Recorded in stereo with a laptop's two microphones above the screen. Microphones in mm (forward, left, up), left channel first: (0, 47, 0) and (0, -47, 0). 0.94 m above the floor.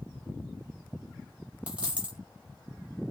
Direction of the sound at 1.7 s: 15° right (ahead or behind).